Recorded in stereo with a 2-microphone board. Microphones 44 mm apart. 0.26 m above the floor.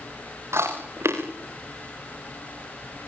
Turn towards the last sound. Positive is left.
turn(degrees=-90)